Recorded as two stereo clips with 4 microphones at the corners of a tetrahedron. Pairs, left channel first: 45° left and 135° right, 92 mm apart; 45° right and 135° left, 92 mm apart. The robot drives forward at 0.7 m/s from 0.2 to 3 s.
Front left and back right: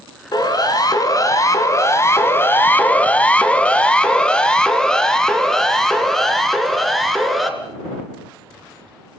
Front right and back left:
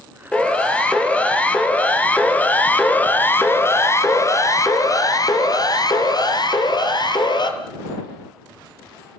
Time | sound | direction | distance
0.3 | a siren | 30° left | 3 m